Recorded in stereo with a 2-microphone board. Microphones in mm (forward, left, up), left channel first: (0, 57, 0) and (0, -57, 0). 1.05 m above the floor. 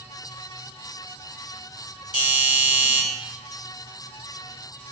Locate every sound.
2.1 s a doorbell: 40° left (ahead or behind), 1.0 m